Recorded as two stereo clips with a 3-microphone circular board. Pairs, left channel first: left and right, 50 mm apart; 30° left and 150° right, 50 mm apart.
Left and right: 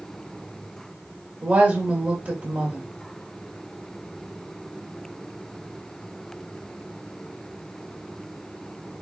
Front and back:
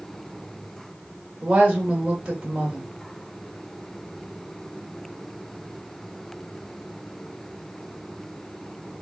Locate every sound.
1.4 s a woman speaking: 105° right, 1.6 m